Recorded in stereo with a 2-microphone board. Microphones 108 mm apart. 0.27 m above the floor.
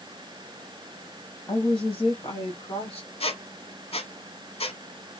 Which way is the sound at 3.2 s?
65° left (ahead or behind).